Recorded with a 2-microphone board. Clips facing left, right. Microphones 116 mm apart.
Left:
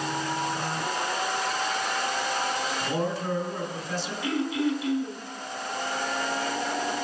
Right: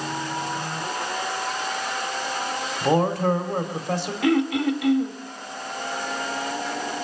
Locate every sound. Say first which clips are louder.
2.8 s a man speaking: right 12 dB; 65° right (ahead or behind), 3 m
4.2 s throat clearing: right 6 dB; 75° right (ahead or behind), 2.5 m